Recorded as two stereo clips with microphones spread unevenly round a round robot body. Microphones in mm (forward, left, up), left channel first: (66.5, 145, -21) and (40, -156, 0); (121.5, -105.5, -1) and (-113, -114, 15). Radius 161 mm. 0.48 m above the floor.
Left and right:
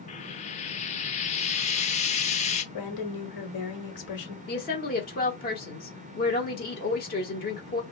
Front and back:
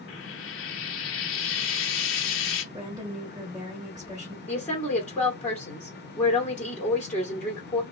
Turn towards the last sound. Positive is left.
turn(degrees=75)